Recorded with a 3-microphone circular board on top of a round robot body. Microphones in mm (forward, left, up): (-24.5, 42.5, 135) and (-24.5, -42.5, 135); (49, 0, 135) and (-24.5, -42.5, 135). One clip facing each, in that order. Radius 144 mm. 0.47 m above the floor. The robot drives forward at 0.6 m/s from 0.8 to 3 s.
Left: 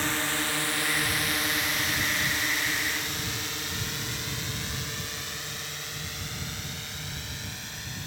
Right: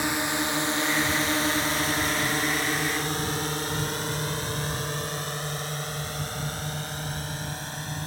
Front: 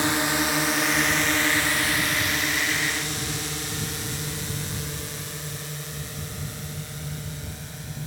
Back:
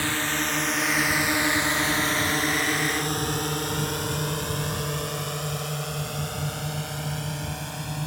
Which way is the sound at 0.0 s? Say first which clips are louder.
Right 3 dB, front 3 dB; 25° right.